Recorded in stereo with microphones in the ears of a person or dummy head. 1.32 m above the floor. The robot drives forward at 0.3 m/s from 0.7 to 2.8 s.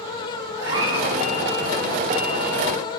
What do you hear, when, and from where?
0.6 s a cat meowing: 20° right (ahead or behind), 2.5 m